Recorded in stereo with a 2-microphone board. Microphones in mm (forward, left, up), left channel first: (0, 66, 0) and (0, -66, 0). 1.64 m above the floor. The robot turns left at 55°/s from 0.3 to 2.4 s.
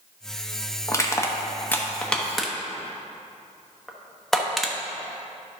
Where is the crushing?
25° left (ahead or behind), 1.0 m; by 4.8 s centre (ahead or behind), 1.0 m.